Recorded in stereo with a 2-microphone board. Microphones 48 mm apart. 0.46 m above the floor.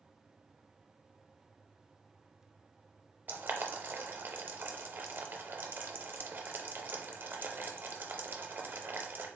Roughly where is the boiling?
Right.